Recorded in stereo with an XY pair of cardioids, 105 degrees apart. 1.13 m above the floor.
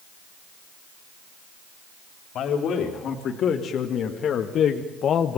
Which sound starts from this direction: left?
A man speaking, at 2.4 s.